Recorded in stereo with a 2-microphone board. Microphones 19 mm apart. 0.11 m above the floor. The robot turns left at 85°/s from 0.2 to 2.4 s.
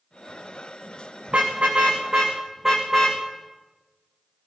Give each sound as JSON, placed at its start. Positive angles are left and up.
{"t": 1.3, "sound": "a car horn", "side_deg": -70, "distance_m": 4.0}